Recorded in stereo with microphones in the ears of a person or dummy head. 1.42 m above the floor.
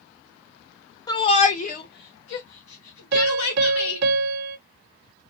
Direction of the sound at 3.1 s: 60° right (ahead or behind).